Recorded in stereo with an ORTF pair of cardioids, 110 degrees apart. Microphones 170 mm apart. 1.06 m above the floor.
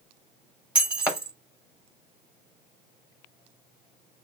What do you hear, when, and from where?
0.8 s breaking glass: 5° right, 0.7 m